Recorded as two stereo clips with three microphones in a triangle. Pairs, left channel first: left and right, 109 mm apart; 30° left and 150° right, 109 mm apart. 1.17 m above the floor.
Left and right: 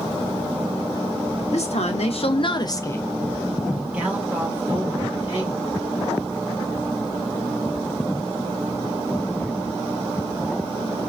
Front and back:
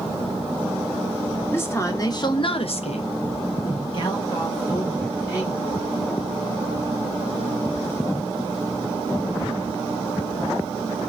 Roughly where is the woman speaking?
Left.